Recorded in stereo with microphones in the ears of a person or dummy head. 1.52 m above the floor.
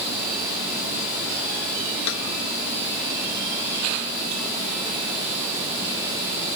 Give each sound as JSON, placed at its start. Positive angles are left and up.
{"t": 2.1, "sound": "a snare drum", "side_deg": 80}